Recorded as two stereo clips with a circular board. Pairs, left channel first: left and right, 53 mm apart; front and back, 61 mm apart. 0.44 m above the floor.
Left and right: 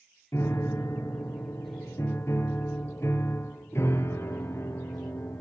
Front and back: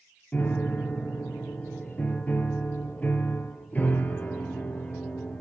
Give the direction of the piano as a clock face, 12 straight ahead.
10 o'clock.